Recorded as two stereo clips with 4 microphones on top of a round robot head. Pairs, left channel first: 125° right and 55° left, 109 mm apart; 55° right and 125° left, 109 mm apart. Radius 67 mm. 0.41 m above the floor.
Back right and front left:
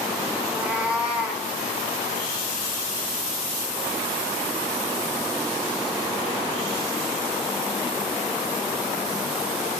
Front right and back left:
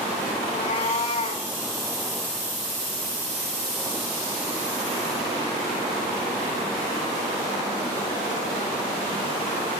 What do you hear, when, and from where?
0.4 s a cat meowing: 25° right, 4 m